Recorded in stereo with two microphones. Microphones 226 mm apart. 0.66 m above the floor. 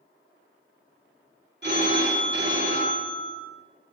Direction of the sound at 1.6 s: 50° right (ahead or behind).